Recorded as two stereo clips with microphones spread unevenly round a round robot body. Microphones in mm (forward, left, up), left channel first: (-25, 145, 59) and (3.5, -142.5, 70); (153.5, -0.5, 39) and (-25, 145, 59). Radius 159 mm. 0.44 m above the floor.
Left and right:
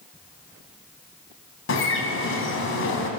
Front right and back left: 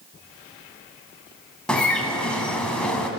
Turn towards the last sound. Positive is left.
turn(degrees=45)